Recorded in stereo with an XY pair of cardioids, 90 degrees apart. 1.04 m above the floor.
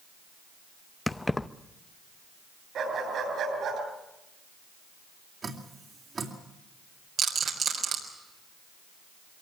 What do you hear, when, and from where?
1.1 s keys jangling: 15° left, 0.7 m
2.8 s a dog barking: 65° right, 7.5 m
5.4 s dripping: 40° right, 3.5 m
7.2 s a rattle: 65° right, 4 m